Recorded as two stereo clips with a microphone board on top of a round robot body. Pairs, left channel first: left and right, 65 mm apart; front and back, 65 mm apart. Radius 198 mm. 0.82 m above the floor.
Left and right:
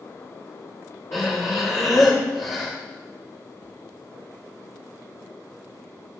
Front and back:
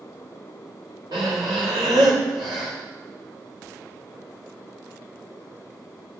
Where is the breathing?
150° left, 0.6 m.